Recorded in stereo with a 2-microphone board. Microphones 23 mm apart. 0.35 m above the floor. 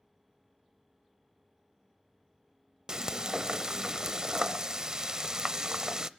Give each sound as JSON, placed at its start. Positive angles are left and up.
{"t": 2.9, "sound": "frying", "side_deg": -35, "distance_m": 0.6}